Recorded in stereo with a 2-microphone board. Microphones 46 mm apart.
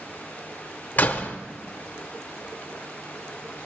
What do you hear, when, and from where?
1.0 s a door slam: 35° left (ahead or behind), 0.8 m